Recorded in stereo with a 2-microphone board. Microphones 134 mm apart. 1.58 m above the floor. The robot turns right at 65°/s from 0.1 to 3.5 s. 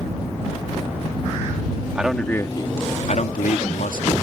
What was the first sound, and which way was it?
A man speaking, 10° right.